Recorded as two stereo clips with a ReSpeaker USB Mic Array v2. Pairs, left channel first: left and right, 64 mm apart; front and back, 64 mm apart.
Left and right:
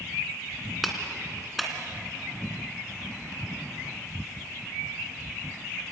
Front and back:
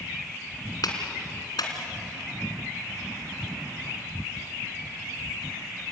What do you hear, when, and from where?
0.8 s a clap: straight ahead, 2.5 m